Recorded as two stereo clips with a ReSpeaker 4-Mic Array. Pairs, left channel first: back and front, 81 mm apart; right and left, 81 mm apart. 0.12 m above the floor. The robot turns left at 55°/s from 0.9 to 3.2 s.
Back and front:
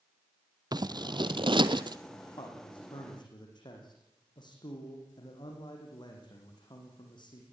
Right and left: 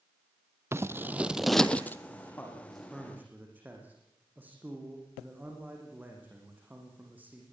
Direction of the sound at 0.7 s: 30° left.